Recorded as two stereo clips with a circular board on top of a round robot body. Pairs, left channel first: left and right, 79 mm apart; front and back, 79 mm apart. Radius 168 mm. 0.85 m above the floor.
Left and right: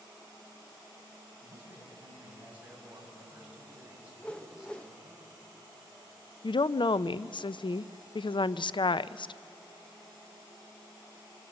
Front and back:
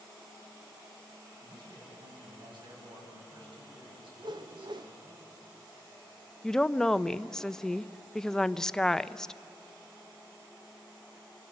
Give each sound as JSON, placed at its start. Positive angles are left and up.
{"t": 1.4, "sound": "a man speaking", "azimuth_deg": -155, "distance_m": 8.5}
{"t": 4.2, "sound": "a whoosh", "azimuth_deg": 165, "distance_m": 0.9}
{"t": 6.4, "sound": "a woman speaking", "azimuth_deg": 85, "distance_m": 0.6}